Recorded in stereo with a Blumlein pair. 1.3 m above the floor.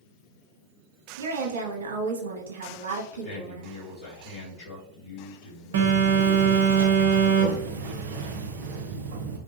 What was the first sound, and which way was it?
A woman speaking, 60° right.